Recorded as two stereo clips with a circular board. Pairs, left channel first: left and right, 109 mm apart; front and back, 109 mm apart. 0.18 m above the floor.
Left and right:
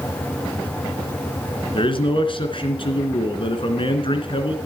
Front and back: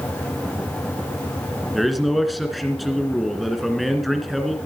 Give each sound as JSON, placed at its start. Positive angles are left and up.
{"t": 1.7, "sound": "a man speaking", "azimuth_deg": 90, "distance_m": 2.0}